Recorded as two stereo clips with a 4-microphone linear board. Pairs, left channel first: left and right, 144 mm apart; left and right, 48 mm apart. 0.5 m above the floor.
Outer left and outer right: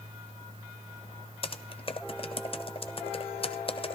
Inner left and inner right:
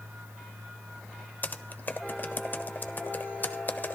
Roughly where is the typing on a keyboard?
Left.